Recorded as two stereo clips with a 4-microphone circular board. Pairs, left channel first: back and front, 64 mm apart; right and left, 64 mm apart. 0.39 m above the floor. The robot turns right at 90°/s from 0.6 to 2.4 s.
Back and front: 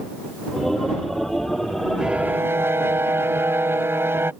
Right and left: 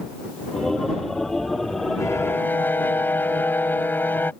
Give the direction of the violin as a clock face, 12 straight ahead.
3 o'clock.